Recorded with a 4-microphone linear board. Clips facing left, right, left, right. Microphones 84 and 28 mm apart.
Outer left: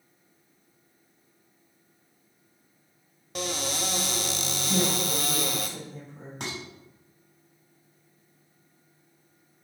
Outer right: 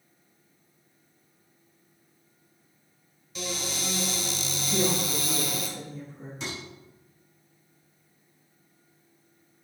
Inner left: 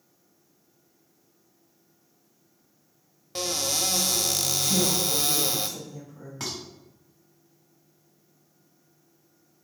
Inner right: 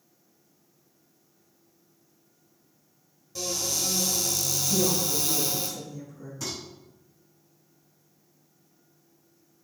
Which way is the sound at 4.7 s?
70° left (ahead or behind).